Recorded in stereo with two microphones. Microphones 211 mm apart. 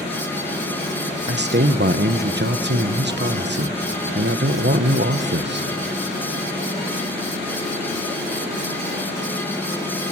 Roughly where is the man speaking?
Right.